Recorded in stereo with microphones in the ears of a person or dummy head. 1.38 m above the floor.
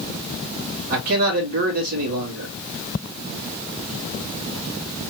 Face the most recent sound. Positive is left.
turn(degrees=-50)  # may be behind; listen again after turning